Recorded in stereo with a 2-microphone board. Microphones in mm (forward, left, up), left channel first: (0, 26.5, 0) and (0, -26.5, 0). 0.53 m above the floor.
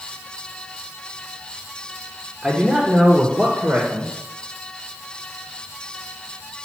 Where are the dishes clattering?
I don't hear dishes clattering.